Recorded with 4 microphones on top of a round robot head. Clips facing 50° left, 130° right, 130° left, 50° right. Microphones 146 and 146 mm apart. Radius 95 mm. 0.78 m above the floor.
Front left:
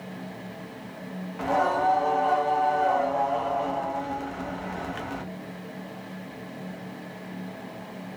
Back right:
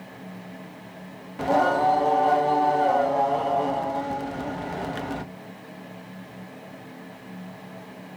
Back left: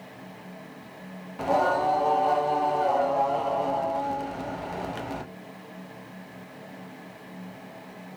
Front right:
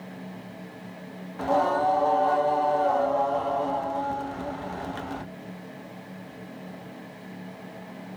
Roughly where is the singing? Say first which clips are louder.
Back right 3 dB, even; behind.